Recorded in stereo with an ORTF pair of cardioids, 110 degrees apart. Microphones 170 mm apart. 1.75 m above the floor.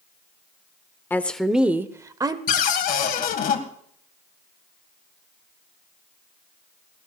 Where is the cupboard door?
60° left, 1.9 m.